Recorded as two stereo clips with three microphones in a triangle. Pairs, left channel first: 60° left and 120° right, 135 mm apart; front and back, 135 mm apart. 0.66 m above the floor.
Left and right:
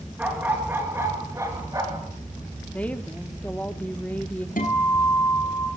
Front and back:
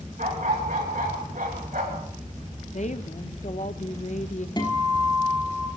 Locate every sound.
0.2 s a dog barking: 160° left, 3 m; by 2.1 s straight behind, 3.5 m
2.7 s a woman speaking: 20° right, 1.1 m
4.6 s a guitar: 55° left, 7 m